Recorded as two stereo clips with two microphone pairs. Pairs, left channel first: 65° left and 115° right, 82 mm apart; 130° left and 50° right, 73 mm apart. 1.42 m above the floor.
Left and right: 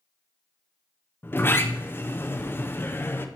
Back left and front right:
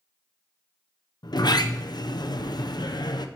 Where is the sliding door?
125° left, 0.7 m.